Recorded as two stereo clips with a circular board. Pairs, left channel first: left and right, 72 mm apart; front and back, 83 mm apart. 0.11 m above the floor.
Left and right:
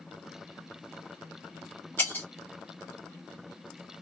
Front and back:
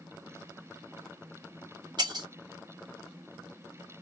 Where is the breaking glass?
150° left, 0.8 m.